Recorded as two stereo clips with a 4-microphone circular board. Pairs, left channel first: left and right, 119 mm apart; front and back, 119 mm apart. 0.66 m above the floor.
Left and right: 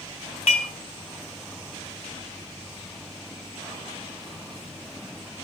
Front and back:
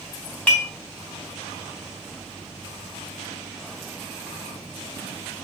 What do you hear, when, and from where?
0.5 s dishes clattering: 75° left, 2.0 m